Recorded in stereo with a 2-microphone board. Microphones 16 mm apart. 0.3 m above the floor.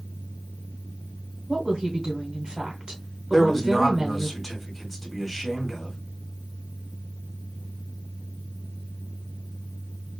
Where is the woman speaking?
50° right (ahead or behind), 1.8 m.